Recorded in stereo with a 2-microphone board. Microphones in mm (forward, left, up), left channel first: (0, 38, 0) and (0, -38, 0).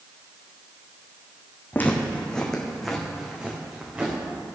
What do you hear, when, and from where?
1.7 s footsteps: 25° left (ahead or behind), 1.8 m; by 4.2 s 20° right (ahead or behind), 3 m